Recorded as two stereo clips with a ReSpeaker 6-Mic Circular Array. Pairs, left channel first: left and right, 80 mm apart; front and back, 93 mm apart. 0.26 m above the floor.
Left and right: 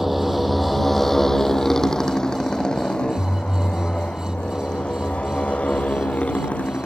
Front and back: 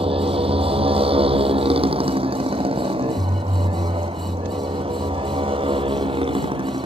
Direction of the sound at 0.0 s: Straight behind.